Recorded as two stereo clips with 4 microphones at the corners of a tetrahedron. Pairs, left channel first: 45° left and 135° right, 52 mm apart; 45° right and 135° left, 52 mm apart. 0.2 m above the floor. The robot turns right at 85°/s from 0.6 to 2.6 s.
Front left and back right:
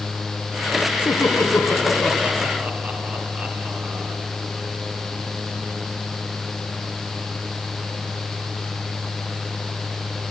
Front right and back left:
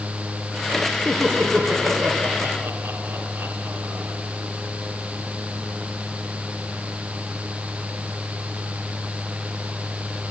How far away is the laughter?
About 2.5 m.